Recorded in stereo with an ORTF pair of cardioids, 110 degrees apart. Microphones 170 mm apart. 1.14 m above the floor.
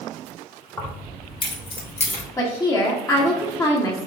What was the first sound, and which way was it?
Keys jangling, 15° left.